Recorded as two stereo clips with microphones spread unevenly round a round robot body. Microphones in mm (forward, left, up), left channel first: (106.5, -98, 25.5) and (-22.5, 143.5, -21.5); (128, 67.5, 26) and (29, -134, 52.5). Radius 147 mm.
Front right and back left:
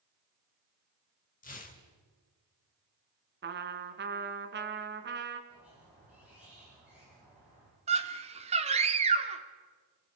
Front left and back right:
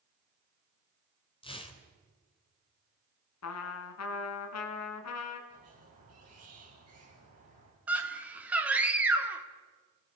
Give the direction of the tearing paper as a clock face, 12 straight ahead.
12 o'clock.